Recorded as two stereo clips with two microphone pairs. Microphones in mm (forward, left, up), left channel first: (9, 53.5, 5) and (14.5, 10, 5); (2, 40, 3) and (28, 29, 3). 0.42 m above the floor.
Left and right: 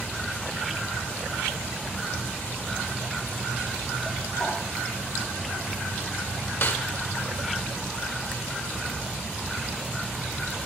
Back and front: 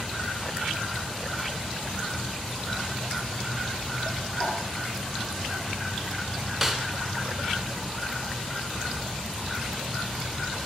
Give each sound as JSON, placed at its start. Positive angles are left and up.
{"t": 4.4, "sound": "a whoosh", "azimuth_deg": 145, "distance_m": 5.5}
{"t": 6.6, "sound": "a snare drum", "azimuth_deg": 60, "distance_m": 1.2}